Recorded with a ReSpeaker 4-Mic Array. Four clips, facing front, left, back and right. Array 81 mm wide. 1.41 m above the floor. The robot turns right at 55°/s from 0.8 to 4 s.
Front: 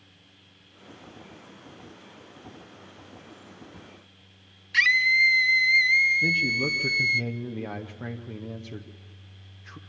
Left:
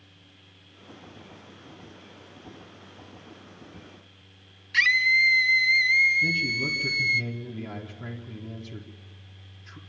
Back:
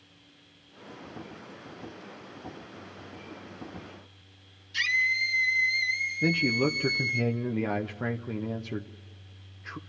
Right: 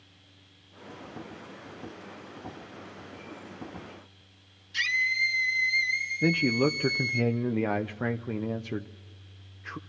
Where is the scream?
45° left, 1.3 m.